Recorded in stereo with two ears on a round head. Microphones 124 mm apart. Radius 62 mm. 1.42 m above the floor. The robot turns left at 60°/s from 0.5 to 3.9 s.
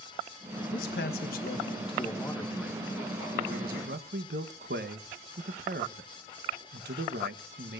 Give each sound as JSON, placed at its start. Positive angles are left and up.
{"t": 0.7, "sound": "a man speaking", "azimuth_deg": 110, "distance_m": 1.2}